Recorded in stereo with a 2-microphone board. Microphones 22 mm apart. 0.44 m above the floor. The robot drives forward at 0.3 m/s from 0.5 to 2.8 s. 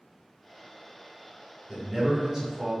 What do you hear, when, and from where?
1.7 s a man speaking: 30° right (ahead or behind), 1.2 m; by 2.7 s 25° right (ahead or behind), 1.4 m